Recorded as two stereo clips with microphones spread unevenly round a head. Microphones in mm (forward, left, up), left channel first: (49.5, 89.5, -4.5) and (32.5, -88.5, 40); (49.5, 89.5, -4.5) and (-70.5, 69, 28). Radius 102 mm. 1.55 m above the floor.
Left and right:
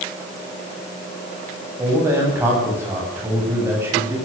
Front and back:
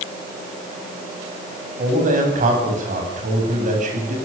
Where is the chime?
No chime in this recording.